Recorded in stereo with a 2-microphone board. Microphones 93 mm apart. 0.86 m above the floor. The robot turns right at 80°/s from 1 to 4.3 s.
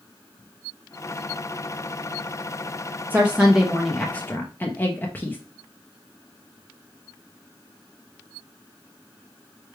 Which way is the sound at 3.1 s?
20° right (ahead or behind).